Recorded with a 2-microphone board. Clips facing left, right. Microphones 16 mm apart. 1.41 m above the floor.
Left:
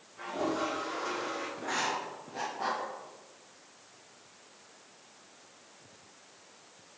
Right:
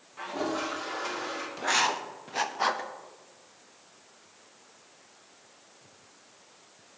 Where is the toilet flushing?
35° right (ahead or behind), 1.7 m.